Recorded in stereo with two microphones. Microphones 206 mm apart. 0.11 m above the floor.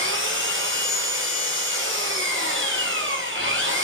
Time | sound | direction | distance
0.0 | an engine running | 70° right (ahead or behind) | 5.5 m